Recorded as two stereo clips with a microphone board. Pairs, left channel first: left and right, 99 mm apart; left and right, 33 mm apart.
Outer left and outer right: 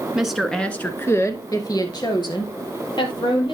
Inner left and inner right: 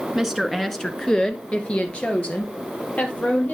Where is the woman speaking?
10° right (ahead or behind), 1.2 m; by 3.5 s 65° left (ahead or behind), 3 m.